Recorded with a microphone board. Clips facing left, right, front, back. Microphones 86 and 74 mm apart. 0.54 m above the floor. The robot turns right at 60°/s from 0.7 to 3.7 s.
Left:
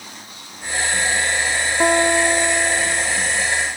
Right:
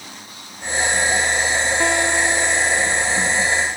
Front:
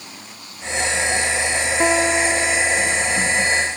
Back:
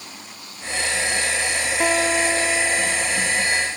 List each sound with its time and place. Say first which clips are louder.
1.8 s a guitar: left 6 dB, front 2 dB; 55° left, 1.1 m; by 3.1 s 130° left, 1.1 m